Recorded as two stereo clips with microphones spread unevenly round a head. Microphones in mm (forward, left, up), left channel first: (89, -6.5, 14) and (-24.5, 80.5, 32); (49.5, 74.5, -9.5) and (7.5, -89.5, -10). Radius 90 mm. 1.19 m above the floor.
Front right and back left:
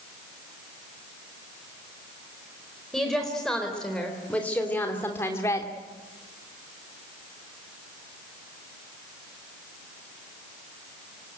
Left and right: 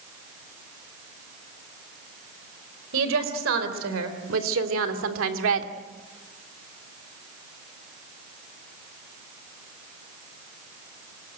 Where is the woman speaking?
125° right, 4.5 m; by 5.7 s 110° right, 2.5 m.